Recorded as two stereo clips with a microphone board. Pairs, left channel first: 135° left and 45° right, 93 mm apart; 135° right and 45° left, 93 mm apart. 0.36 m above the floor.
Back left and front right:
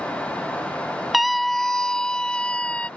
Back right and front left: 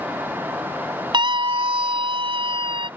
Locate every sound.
1.1 s a scream: 45° left; by 2.9 s 60° left